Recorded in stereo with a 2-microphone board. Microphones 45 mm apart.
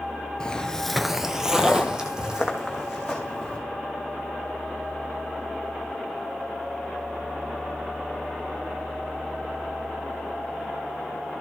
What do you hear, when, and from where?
0.4 s footsteps: 20° left (ahead or behind), 0.7 m; by 3.6 s 15° right (ahead or behind), 3.5 m